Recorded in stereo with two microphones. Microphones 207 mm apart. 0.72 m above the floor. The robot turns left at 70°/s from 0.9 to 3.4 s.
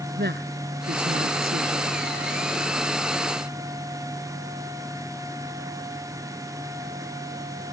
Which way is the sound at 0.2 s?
55° right.